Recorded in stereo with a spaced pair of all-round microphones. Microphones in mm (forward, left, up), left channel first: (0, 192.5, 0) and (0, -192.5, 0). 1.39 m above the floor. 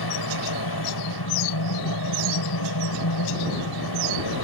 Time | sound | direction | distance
0.0 | a fan | 80° left | ?